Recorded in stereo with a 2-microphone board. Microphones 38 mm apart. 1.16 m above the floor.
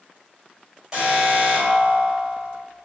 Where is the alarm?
25° right (ahead or behind), 4 m.